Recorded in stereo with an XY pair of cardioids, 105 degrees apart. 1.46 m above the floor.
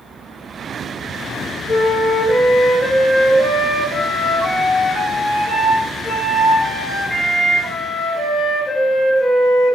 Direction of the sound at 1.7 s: 30° left.